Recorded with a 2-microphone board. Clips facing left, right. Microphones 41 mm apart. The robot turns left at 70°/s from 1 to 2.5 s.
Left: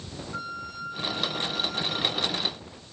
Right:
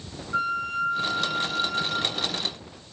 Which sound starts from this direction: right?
A flute, at 0.3 s.